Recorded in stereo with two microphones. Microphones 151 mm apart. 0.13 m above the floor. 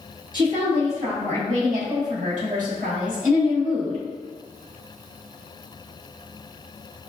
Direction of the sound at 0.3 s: 35° right (ahead or behind).